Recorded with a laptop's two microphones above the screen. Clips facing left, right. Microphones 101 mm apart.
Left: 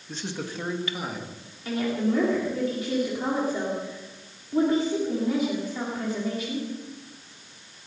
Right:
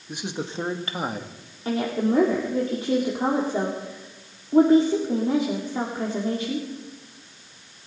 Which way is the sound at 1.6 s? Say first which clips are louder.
Right 2 dB; 35° right (ahead or behind).